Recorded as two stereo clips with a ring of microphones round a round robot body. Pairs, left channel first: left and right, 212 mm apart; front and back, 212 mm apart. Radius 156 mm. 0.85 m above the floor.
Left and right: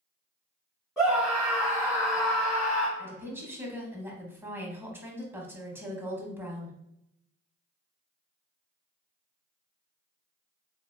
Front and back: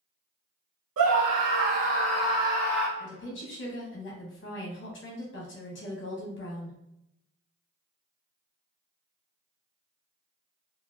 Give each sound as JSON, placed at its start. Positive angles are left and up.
{"t": 1.0, "sound": "a scream", "azimuth_deg": 180, "distance_m": 0.7}
{"t": 3.0, "sound": "a woman speaking", "azimuth_deg": -10, "distance_m": 0.8}